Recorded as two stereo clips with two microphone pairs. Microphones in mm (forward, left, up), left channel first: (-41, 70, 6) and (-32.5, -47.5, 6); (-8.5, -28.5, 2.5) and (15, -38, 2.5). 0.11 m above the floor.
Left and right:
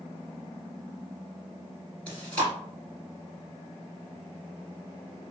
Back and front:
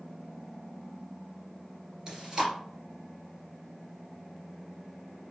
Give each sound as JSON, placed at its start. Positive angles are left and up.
{"t": 2.1, "sound": "chewing", "azimuth_deg": 25, "distance_m": 1.9}